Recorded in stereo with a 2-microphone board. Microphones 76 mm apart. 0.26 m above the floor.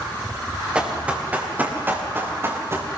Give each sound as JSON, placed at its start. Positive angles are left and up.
{"t": 0.8, "sound": "running footsteps", "side_deg": -10, "distance_m": 6.5}